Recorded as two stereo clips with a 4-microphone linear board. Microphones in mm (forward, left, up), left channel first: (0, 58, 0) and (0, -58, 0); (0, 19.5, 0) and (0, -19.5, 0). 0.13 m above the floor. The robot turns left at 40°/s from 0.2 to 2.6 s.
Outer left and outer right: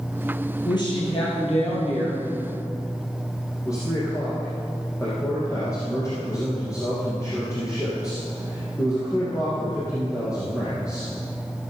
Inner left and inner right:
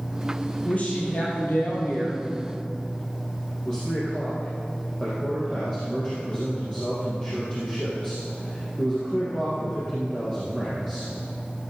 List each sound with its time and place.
0.7 s a woman speaking: 145° left, 4 m; by 2.2 s 80° left, 4 m
3.6 s a man speaking: 25° left (ahead or behind), 4 m